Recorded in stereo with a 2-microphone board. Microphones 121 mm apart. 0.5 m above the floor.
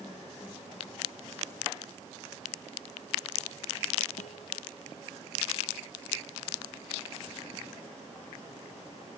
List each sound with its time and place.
4.2 s a guitar: 85° left